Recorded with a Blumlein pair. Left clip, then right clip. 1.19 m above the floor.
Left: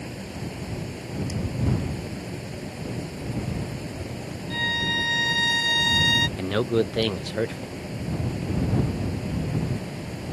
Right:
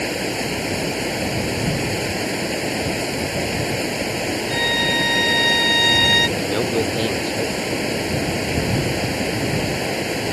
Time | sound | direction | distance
0.0 | running water | 55° right | ?
4.5 | a violin | 15° right | ?
6.4 | a man speaking | 5° left | ?